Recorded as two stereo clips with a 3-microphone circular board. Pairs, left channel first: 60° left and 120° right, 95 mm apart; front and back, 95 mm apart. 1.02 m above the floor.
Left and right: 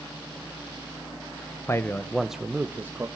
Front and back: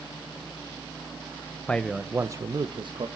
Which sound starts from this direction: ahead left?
A man speaking, at 1.7 s.